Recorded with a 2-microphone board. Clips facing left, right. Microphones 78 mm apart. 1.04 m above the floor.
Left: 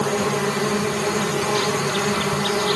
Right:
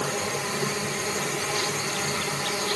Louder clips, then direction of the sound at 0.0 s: Left 8 dB; 75° left (ahead or behind).